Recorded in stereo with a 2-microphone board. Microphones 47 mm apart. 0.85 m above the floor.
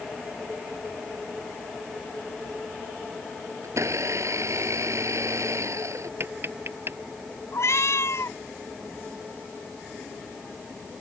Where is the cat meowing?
70° left (ahead or behind).